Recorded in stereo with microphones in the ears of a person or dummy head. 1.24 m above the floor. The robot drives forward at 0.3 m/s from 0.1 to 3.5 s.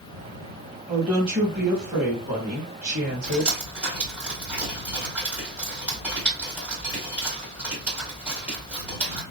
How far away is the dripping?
About 1.9 m.